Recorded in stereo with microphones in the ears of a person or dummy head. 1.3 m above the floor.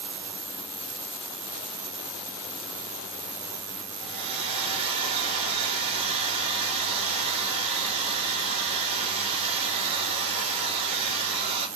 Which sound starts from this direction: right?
A hair dryer, at 4.0 s.